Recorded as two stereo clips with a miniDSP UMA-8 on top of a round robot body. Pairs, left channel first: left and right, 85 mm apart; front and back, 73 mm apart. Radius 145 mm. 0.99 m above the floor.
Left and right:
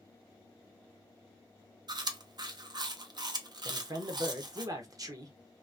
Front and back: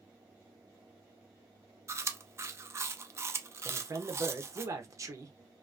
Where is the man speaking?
135° right, 1.0 m.